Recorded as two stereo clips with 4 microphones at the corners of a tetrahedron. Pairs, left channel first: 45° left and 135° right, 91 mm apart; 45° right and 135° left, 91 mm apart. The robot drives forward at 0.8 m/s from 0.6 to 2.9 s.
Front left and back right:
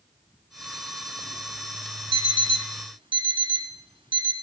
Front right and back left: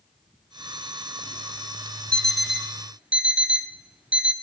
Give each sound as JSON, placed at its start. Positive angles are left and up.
{"t": 2.1, "sound": "an alarm clock", "azimuth_deg": -125, "distance_m": 0.8}